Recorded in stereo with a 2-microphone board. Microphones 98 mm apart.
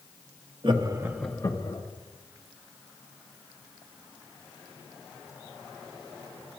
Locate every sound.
0.6 s laughter: 50° right (ahead or behind), 0.9 m; by 1.8 s 55° left (ahead or behind), 0.9 m